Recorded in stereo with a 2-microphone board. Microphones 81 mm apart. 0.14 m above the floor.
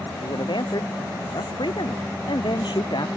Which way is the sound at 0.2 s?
70° left (ahead or behind).